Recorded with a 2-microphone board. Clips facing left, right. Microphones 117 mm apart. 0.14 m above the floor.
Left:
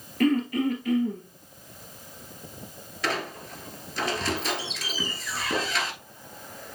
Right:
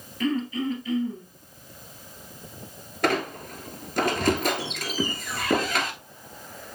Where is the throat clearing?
60° left (ahead or behind), 1.4 m.